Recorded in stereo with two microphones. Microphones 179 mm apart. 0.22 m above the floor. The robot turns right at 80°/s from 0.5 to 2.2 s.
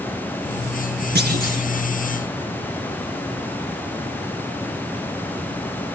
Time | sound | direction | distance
1.1 | a clunk | 85° right | 1.7 m